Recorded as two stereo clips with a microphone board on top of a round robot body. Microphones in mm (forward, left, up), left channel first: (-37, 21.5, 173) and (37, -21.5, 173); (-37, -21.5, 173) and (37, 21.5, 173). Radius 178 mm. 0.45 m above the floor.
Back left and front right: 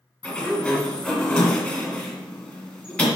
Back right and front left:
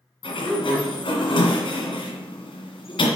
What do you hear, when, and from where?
0.2 s a sliding door: 135° right, 1.7 m